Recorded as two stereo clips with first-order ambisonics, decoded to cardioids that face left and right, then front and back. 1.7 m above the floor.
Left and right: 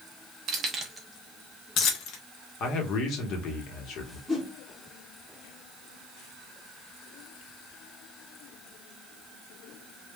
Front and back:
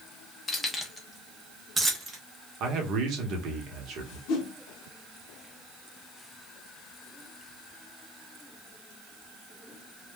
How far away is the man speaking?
About 0.8 m.